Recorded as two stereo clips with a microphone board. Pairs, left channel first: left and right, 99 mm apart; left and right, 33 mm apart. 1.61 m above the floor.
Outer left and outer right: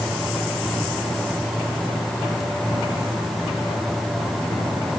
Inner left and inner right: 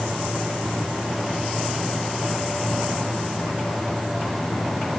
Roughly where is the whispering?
No whispering in this recording.